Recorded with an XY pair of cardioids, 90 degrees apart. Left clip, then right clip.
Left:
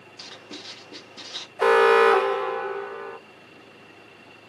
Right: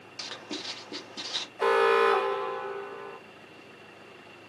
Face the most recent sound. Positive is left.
turn(degrees=50)